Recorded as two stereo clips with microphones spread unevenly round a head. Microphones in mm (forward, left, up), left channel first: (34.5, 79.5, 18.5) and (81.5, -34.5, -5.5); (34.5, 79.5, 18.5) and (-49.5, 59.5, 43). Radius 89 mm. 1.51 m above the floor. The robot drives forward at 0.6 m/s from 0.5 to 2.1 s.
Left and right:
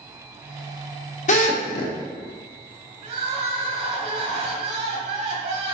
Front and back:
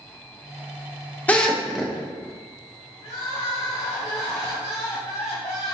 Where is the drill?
85° left, 0.8 m; by 1.9 s 115° left, 0.8 m.